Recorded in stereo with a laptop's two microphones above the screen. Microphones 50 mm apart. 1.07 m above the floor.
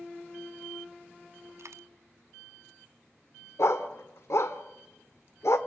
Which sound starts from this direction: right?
A dropped coin, at 1.6 s.